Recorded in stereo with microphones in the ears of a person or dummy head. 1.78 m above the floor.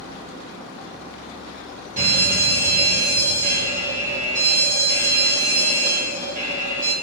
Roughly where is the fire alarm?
Right.